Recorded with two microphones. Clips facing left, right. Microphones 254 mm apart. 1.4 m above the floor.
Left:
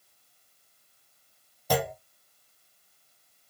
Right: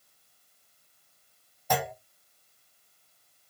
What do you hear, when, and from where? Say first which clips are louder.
1.7 s a clunk: left 3 dB; 40° left (ahead or behind), 0.6 m